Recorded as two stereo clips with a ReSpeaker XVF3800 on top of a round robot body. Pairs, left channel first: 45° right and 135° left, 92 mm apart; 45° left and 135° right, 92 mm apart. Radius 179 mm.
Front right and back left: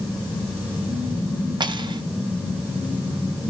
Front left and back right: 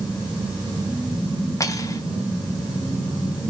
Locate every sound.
1.6 s cutlery clinking: 100° left, 1.3 m